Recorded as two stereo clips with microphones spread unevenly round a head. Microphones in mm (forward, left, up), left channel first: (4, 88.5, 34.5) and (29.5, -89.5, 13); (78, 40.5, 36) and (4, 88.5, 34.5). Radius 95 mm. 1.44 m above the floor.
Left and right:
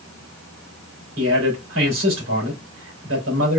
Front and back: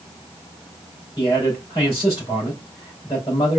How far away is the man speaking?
About 3 m.